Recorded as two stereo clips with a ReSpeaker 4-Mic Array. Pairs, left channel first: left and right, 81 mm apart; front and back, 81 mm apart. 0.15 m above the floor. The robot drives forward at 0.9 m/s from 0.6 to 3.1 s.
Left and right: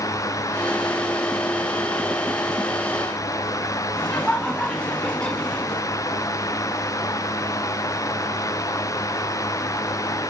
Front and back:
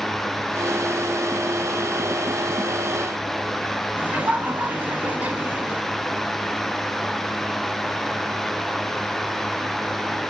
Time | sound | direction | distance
4.0 | laughter | 150° left | 1.2 m